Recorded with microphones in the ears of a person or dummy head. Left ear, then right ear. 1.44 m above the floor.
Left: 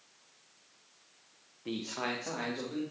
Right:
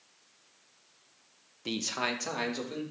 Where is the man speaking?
80° right, 1.1 m; by 2.8 s 85° right, 3 m.